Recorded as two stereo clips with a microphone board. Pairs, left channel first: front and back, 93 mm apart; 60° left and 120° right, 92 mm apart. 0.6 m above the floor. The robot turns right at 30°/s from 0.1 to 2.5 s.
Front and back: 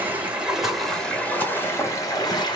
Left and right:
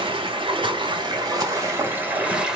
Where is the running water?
110° right, 1.2 m; by 2.6 s 40° right, 1.2 m.